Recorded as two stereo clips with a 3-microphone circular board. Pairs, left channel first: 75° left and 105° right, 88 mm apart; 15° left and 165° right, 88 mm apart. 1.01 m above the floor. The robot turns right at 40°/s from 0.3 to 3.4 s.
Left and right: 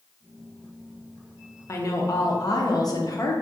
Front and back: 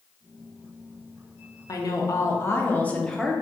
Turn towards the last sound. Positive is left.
turn(degrees=105)